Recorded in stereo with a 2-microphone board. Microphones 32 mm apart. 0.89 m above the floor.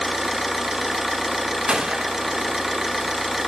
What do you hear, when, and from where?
0.0 s an engine running: 10° right (ahead or behind), 0.9 m
1.7 s a gunshot: 30° right (ahead or behind), 0.5 m